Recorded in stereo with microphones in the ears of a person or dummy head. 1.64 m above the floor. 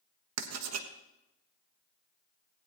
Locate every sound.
0.4 s writing: 85° right, 1.1 m